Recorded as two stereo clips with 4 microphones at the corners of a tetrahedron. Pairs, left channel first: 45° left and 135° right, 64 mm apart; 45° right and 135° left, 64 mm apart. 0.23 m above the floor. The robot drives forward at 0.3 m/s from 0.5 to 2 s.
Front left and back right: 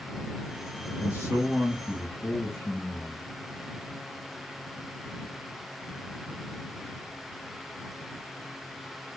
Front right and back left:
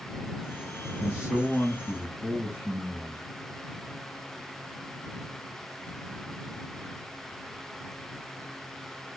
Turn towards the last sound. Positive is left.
turn(degrees=85)